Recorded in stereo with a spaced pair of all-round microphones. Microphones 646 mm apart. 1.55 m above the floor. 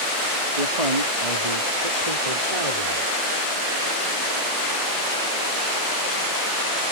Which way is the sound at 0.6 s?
75° right (ahead or behind).